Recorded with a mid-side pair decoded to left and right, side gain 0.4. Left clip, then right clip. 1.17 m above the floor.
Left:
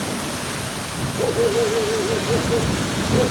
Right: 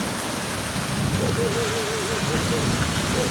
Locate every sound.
1.2 s a dog barking: 50° left